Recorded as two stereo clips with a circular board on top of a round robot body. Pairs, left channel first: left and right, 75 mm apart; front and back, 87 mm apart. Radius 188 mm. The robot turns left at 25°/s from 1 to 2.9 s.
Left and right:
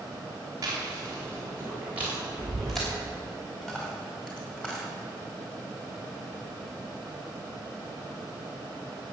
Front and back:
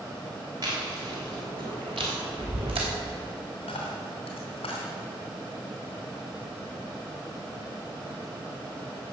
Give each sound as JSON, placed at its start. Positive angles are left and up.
{"t": 0.6, "sound": "chewing", "azimuth_deg": -140, "distance_m": 3.0}
{"t": 3.6, "sound": "a dropped coin", "azimuth_deg": 10, "distance_m": 2.5}